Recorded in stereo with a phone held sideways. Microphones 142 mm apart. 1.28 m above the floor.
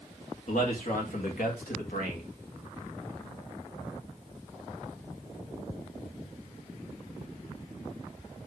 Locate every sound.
0.5 s a man speaking: 65° left (ahead or behind), 2 m; by 2.2 s 75° left (ahead or behind), 2 m